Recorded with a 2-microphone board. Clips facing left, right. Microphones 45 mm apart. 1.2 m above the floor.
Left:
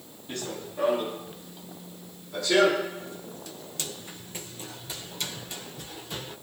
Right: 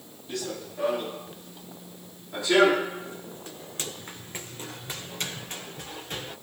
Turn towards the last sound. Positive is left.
turn(degrees=-50)  # may be behind; listen again after turning